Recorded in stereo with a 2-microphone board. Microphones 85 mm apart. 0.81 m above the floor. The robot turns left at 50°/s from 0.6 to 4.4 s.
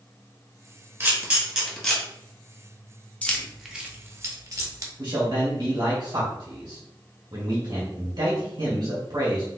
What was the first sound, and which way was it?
A camera shutter, 30° right (ahead or behind).